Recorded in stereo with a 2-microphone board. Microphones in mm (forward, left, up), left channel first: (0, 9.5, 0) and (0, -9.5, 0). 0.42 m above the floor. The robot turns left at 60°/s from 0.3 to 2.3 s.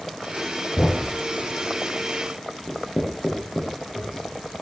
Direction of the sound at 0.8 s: 70° left (ahead or behind).